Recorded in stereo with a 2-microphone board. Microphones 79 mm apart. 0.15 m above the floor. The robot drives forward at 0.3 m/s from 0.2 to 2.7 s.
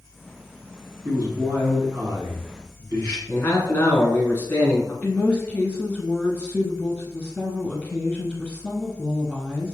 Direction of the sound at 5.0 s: 10° left (ahead or behind).